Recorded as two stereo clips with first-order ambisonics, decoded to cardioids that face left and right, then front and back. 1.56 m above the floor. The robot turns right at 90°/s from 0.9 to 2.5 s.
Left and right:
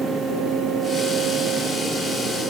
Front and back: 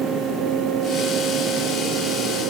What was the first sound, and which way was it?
Only background noise.